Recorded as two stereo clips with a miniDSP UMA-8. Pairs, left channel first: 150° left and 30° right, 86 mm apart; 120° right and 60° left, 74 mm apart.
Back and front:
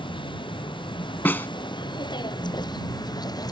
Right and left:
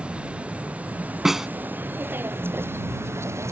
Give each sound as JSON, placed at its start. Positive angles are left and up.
{"t": 0.0, "sound": "a vehicle", "azimuth_deg": 135}
{"t": 1.2, "sound": "a snare drum", "azimuth_deg": 140}